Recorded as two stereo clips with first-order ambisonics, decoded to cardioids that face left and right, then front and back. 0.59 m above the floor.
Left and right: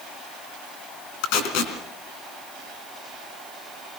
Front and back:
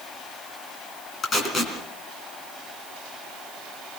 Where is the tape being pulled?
70° left, 3.5 m.